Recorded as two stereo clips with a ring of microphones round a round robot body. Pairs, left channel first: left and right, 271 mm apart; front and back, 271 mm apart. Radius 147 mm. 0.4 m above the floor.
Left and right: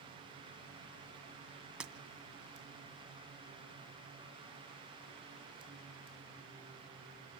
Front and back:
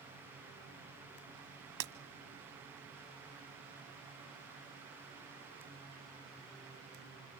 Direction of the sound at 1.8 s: 175° right.